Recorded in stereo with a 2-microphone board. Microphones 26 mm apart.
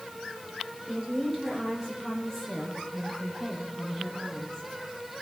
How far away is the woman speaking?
About 6 m.